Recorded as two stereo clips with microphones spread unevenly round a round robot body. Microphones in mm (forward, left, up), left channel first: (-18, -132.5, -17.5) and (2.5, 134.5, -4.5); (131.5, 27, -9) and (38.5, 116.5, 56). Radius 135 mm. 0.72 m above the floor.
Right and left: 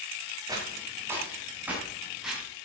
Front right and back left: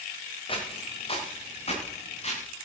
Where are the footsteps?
10° left, 5 m; by 2.4 s 5° right, 5.5 m.